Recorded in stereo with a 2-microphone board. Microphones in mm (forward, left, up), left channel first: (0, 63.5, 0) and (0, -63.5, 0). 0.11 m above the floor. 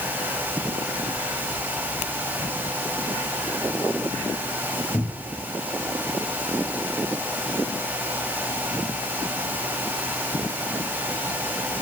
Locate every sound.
4.9 s a cupboard door: centre (ahead or behind), 7 m